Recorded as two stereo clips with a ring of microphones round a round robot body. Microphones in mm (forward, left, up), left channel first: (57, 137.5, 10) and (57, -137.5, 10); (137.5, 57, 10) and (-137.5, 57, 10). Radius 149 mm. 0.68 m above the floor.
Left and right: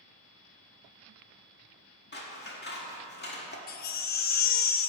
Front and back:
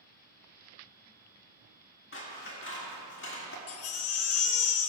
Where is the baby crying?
35° left, 0.6 m.